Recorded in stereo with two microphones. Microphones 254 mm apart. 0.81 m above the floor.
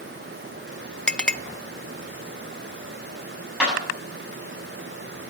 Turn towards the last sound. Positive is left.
turn(degrees=-5)  # may be behind; listen again after turning